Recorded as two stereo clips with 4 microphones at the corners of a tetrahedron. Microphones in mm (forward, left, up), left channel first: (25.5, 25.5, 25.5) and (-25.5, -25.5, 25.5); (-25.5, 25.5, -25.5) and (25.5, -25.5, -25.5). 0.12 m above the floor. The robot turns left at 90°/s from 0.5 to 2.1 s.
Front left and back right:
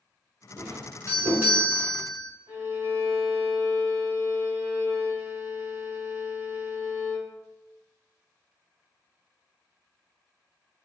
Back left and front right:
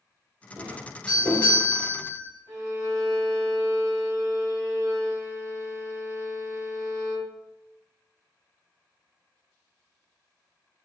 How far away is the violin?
About 1.4 m.